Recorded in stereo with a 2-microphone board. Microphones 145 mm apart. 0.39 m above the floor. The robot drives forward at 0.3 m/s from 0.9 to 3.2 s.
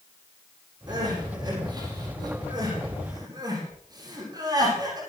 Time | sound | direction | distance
0.9 | crying | 30° right (ahead or behind) | 8.5 m